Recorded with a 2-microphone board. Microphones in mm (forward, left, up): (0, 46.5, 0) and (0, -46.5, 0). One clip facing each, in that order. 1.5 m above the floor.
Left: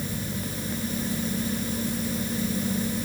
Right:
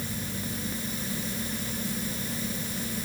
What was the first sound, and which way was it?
Only background noise.